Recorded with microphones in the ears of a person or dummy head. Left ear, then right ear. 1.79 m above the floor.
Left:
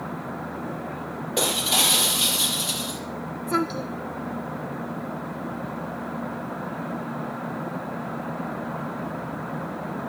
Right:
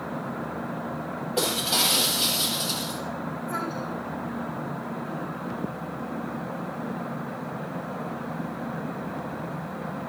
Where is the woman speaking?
70° left (ahead or behind), 2 m.